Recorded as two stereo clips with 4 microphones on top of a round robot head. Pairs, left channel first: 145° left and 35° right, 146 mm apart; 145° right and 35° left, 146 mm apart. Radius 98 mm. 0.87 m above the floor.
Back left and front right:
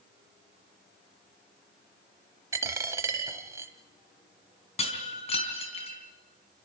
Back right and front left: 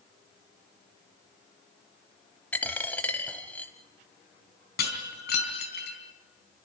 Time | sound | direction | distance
2.5 | a dropped coin | 80° right | 0.7 m
4.8 | breaking glass | 165° right | 4 m